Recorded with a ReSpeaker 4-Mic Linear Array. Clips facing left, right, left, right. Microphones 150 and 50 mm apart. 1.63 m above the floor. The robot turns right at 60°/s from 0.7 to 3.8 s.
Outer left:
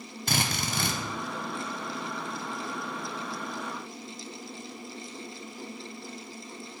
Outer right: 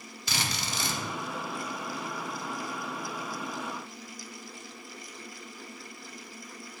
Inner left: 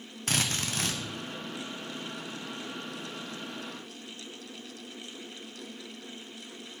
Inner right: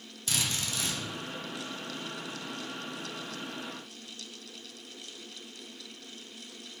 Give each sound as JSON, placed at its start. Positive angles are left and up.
{"t": 0.3, "sound": "a drill", "side_deg": 50, "distance_m": 1.0}